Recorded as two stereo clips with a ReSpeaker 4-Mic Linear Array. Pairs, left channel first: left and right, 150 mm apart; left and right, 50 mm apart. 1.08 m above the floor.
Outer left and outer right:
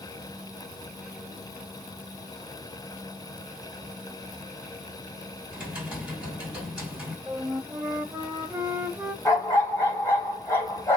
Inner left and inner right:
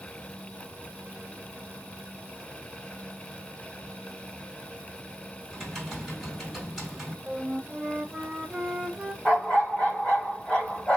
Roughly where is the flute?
Centre.